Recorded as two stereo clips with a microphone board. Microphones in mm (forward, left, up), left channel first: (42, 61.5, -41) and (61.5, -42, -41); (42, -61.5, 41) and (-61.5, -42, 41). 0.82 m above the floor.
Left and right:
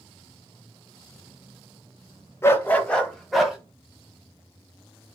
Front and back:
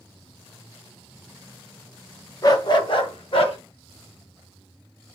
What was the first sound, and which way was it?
A dog barking, 35° left.